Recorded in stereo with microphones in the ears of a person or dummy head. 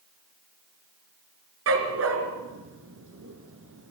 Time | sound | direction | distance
1.7 | a dog barking | 70° right (ahead or behind) | 3.5 m